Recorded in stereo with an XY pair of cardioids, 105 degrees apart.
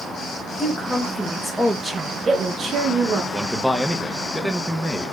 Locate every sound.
0.6 s a woman speaking: 20° left, 1.3 m; by 3.2 s 70° right, 1.0 m
3.3 s a man speaking: straight ahead, 0.8 m